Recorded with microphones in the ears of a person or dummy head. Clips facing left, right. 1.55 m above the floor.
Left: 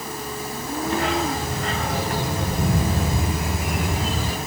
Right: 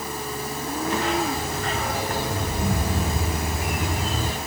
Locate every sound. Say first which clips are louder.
0.9 s a dog barking: left 1 dB; 55° left (ahead or behind), 9 m; by 4.4 s 70° left (ahead or behind), 6 m